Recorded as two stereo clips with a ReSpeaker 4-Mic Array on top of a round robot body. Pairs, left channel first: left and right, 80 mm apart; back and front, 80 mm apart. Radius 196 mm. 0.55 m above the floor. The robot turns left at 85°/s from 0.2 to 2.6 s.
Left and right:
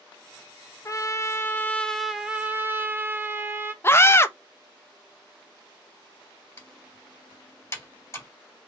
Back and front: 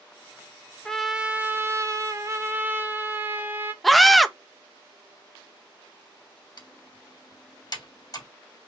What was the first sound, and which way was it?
A trumpet, 100° left.